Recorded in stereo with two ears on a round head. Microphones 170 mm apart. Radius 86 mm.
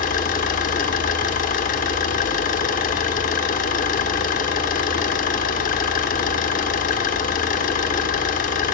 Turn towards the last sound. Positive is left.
turn(degrees=45)  # may be behind; listen again after turning